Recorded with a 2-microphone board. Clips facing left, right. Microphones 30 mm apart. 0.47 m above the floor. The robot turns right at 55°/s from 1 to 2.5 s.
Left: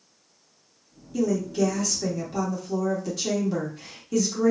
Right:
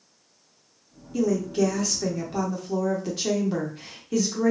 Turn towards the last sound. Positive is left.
turn(degrees=-25)  # may be behind; listen again after turning